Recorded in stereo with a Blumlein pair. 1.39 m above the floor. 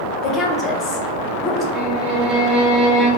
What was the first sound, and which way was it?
A woman speaking, 25° left.